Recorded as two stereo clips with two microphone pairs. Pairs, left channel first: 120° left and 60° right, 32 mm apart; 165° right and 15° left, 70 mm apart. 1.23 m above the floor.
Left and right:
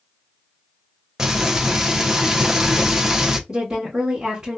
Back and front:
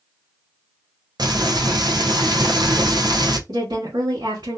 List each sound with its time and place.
1.2 s frying: 15° left, 0.6 m
3.5 s a woman speaking: 10° left, 1.2 m